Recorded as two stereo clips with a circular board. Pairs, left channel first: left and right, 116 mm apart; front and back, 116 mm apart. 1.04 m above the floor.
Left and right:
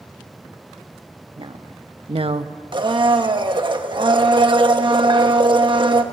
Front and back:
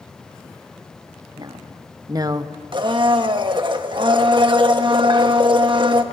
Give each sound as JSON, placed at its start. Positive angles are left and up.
{"t": 1.4, "sound": "a woman speaking", "azimuth_deg": -130, "distance_m": 1.5}
{"t": 2.7, "sound": "a blender", "azimuth_deg": -135, "distance_m": 1.2}